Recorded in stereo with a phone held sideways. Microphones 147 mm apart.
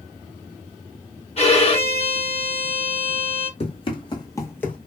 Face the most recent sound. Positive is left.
turn(degrees=5)  # may be behind; listen again after turning